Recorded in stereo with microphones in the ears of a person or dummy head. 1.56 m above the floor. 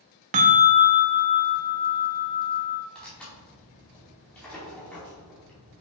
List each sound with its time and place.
0.3 s a bell: 40° right (ahead or behind), 0.6 m
3.0 s tearing paper: 10° left (ahead or behind), 2.5 m